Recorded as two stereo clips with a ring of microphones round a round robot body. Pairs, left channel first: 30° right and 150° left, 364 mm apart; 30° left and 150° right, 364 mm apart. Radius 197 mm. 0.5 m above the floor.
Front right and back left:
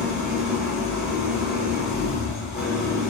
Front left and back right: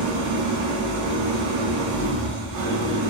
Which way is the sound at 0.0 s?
120° right.